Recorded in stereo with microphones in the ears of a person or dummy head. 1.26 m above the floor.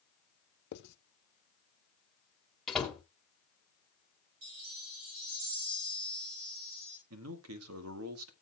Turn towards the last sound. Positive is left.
turn(degrees=-75)  # may be behind; listen again after turning